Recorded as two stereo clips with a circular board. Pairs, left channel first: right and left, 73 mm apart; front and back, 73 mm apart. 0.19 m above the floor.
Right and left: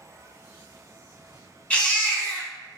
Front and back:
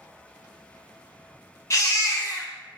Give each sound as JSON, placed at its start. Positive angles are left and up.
{"t": 1.7, "sound": "a baby crying", "azimuth_deg": -25, "distance_m": 1.0}